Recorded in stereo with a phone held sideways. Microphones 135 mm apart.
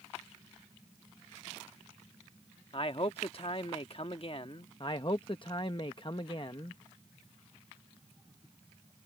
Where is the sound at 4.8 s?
40° left (ahead or behind).